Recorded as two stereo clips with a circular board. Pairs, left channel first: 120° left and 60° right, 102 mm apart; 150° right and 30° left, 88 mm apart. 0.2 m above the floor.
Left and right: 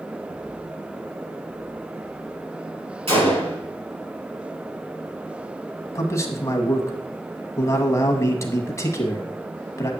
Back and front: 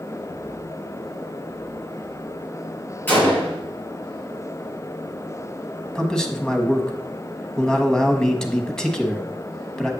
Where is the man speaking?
135° left, 1.1 m.